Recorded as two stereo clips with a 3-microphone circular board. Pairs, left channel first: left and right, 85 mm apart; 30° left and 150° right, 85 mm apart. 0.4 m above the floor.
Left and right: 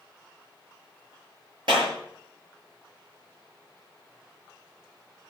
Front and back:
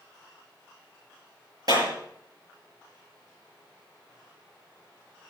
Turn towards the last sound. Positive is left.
turn(degrees=-110)